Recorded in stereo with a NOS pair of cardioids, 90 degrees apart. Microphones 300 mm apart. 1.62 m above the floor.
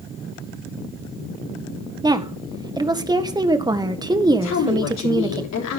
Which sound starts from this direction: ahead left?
A woman speaking, at 4.4 s.